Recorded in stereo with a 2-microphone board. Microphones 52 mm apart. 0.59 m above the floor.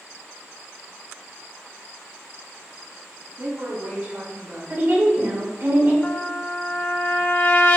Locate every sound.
3.4 s a woman speaking: 35° right (ahead or behind), 0.7 m; by 4.6 s 45° right (ahead or behind), 2 m
4.7 s a woman speaking: 60° right (ahead or behind), 2 m
6.0 s a trumpet: 40° left (ahead or behind), 0.6 m